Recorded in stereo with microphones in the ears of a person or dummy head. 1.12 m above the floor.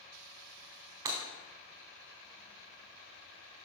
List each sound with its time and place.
1.1 s breaking glass: 20° right (ahead or behind), 1.0 m